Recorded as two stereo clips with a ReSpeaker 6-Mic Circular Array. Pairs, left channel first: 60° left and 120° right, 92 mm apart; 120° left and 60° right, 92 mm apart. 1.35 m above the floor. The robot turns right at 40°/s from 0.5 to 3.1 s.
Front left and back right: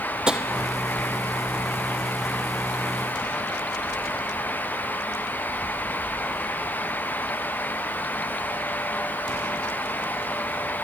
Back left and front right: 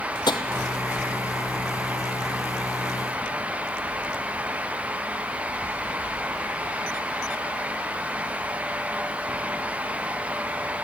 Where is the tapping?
160° left, 1.0 m.